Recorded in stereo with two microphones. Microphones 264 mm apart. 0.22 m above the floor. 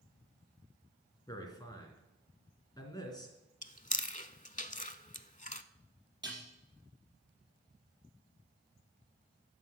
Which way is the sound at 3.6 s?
30° left (ahead or behind).